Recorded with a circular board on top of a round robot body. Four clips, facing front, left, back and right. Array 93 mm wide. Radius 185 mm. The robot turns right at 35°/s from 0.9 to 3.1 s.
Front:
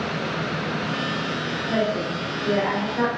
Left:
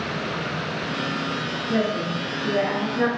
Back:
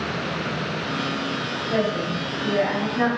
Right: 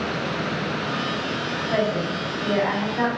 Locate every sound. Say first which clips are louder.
1.7 s a woman speaking: even, even; 100° right, 4.5 m; by 3.1 s 50° right, 4.5 m